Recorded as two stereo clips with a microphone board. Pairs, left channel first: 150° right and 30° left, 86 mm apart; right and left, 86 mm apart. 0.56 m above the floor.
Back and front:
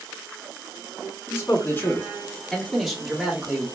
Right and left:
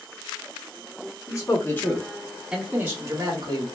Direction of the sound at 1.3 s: 110° right.